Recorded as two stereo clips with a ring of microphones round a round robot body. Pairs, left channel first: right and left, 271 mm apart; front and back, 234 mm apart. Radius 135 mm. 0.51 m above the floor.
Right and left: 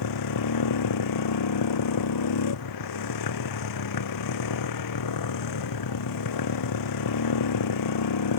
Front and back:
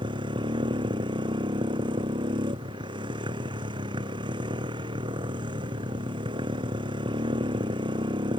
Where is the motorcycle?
105° right.